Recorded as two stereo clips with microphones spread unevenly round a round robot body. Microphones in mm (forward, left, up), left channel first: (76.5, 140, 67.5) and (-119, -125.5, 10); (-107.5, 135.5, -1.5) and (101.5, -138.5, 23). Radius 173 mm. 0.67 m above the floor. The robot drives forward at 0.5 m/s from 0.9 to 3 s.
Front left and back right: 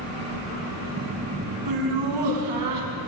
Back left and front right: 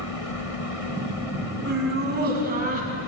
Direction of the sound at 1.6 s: 115° right.